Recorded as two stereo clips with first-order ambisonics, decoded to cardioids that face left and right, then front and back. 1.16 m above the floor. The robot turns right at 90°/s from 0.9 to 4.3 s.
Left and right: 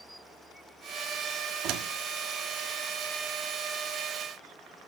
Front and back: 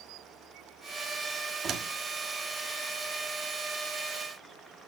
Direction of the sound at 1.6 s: 125° right.